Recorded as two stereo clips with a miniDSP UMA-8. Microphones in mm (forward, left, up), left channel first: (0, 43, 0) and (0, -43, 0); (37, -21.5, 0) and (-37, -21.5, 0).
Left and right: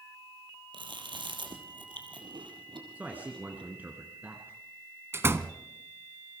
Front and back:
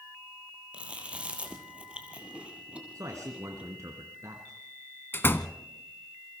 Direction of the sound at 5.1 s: 45° right.